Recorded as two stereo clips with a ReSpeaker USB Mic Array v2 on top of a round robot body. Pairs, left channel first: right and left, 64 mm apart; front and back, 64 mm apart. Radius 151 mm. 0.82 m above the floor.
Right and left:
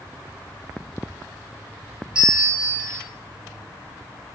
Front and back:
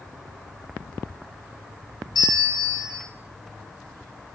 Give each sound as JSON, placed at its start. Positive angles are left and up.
{"t": 2.1, "sound": "a bell", "azimuth_deg": 15, "distance_m": 1.2}